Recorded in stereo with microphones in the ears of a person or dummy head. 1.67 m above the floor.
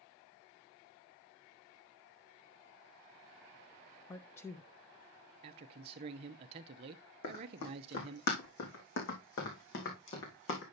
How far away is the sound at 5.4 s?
About 0.6 m.